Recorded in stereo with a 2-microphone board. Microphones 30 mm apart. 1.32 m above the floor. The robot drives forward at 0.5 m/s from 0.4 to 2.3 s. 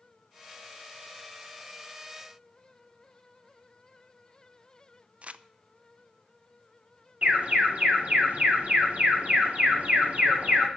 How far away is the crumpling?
About 0.5 m.